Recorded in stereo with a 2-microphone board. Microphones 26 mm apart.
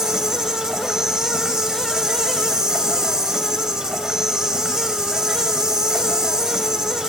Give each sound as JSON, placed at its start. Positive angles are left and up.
{"t": 0.0, "sound": "an insect", "side_deg": -20, "distance_m": 1.9}